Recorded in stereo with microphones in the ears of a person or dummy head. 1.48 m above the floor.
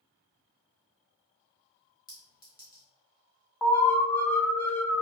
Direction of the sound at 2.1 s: 20° left (ahead or behind).